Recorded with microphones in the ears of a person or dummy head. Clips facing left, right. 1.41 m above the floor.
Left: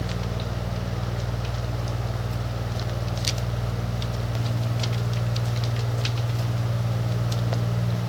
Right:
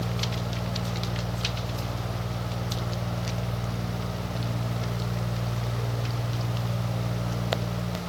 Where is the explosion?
No explosion in this recording.